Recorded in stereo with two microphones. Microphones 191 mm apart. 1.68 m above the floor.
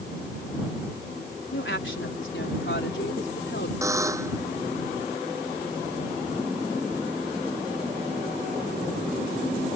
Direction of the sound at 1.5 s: 85° left.